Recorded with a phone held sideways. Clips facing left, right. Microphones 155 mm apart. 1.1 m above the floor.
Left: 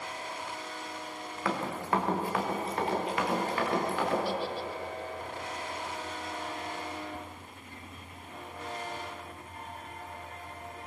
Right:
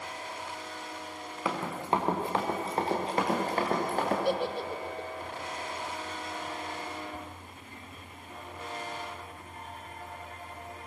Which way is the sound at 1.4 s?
10° right (ahead or behind).